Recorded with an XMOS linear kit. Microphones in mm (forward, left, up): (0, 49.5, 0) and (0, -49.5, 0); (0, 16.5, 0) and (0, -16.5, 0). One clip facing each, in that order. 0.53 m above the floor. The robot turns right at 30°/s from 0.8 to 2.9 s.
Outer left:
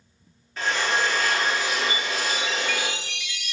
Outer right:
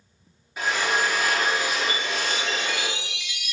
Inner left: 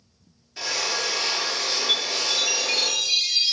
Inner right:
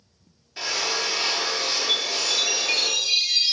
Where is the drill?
10° right (ahead or behind), 0.8 m; by 2.9 s 5° left (ahead or behind), 0.8 m.